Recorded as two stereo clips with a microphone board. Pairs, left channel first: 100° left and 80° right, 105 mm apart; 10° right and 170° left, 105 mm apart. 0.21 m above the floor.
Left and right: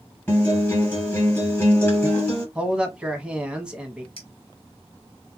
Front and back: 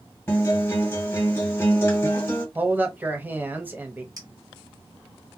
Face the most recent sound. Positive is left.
turn(degrees=125)